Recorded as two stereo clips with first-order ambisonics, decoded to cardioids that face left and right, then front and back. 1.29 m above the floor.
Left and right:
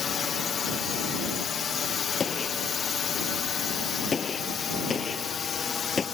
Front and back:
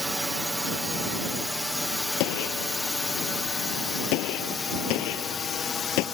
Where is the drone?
95° left; by 6.2 s 45° left.